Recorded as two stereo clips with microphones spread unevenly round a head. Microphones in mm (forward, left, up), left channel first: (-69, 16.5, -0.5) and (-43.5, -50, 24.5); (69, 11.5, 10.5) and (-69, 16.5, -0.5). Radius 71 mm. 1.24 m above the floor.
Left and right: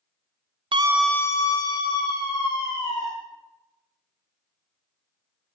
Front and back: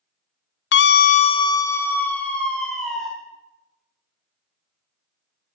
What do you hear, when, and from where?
0.7 s a scream: 15° right, 0.6 m; by 3.1 s 85° left, 2.5 m